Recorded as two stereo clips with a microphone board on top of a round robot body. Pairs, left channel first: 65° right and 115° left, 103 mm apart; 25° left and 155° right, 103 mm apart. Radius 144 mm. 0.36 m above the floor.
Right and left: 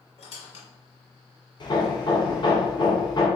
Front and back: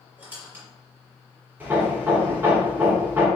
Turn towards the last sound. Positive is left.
turn(degrees=-90)